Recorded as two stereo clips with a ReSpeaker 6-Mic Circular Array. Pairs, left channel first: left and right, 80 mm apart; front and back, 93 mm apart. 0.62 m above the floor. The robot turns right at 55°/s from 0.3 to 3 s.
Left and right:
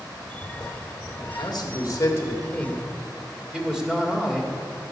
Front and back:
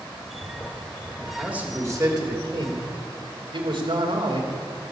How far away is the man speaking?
About 1.9 m.